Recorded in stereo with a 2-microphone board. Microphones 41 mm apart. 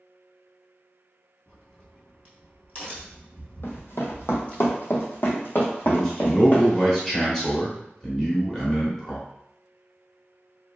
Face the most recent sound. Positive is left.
turn(degrees=10)  # may be behind; listen again after turning